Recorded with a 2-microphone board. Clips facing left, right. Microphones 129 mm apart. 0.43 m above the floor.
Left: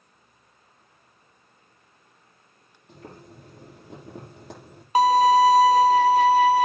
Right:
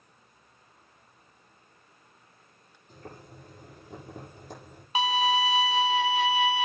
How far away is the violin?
About 0.7 m.